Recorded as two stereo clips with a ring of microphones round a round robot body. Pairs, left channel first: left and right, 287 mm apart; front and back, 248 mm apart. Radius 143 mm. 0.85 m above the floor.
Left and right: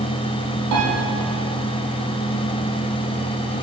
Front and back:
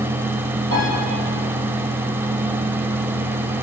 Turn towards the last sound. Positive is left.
turn(degrees=-60)